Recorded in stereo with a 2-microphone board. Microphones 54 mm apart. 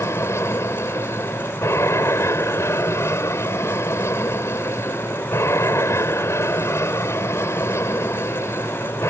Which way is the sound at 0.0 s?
55° left (ahead or behind).